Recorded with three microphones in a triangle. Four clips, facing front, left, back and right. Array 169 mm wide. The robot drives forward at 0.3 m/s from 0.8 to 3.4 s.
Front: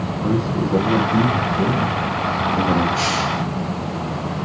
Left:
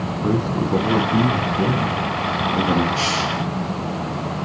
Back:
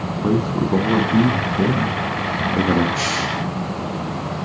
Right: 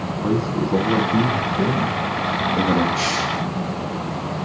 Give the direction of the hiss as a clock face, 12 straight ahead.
7 o'clock.